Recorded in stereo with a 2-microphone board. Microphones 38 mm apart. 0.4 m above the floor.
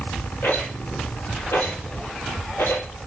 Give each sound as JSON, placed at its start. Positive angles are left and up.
{"t": 0.4, "sound": "a rattle", "side_deg": 85, "distance_m": 5.0}